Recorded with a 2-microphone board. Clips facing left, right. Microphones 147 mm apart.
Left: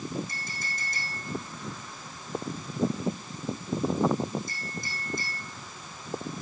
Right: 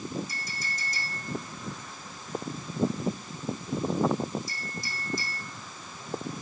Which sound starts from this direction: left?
A clink, at 0.3 s.